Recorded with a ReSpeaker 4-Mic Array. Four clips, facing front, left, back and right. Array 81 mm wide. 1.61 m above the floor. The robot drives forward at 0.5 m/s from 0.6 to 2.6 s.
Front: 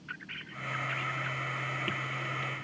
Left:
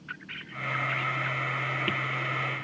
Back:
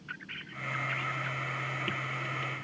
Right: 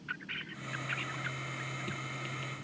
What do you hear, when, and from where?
Only background noise.